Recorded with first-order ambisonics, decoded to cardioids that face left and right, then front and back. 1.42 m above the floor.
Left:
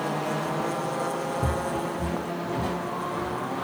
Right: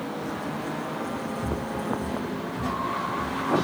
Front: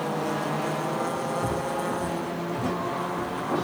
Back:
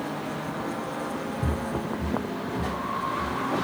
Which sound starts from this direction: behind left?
Footsteps, at 1.4 s.